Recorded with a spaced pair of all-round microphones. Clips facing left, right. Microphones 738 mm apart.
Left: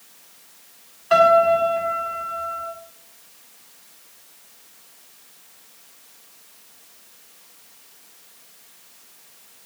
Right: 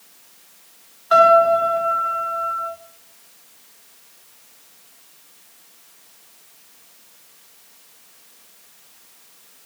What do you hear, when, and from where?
1.1 s a piano: 55° left (ahead or behind), 2.0 m